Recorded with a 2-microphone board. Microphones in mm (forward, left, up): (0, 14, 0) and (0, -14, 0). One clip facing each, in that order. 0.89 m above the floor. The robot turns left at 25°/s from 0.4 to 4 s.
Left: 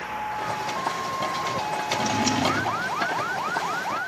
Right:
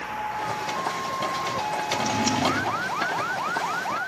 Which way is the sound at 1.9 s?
15° left (ahead or behind).